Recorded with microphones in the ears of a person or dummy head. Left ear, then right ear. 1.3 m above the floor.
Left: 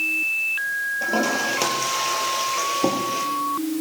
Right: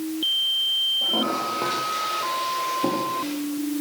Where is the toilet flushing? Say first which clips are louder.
Left 1 dB; 75° left (ahead or behind), 4.5 m.